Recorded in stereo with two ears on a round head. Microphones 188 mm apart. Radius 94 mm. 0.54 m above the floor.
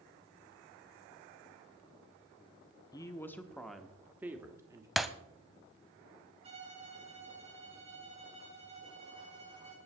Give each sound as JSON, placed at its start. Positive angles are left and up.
{"t": 2.9, "sound": "a woman speaking", "side_deg": 20, "distance_m": 1.0}
{"t": 5.0, "sound": "breaking glass", "side_deg": 0, "distance_m": 0.7}
{"t": 6.4, "sound": "a violin", "side_deg": -30, "distance_m": 5.5}